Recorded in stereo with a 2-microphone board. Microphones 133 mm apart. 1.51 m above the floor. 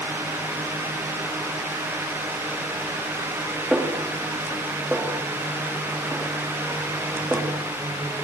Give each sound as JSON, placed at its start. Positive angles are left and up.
{"t": 3.7, "sound": "a snare drum", "side_deg": -5, "distance_m": 2.5}